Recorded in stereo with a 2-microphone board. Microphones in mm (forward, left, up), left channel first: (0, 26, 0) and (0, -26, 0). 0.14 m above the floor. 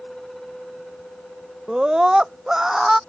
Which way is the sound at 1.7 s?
15° right (ahead or behind).